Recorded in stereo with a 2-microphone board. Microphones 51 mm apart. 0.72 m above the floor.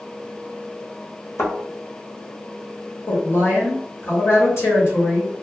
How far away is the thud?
About 0.9 m.